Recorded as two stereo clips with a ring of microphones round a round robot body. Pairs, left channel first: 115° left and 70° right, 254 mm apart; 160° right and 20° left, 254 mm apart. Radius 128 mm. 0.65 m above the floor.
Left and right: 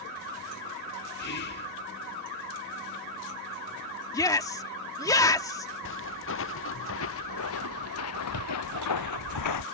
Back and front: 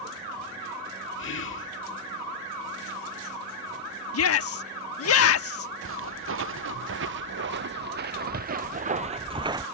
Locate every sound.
1.2 s whispering: 160° left
4.1 s a shout: 170° right
5.8 s footsteps: 65° left; by 9.7 s 100° left